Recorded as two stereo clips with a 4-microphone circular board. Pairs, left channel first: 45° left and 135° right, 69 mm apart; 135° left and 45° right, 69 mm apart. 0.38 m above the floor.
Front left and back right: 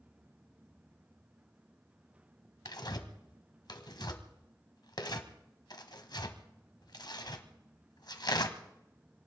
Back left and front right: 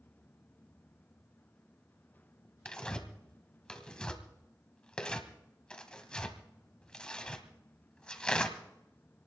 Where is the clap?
I don't hear a clap.